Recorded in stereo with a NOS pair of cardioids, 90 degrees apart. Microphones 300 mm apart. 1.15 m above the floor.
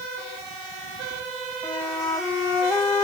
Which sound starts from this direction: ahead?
A flute, at 1.6 s.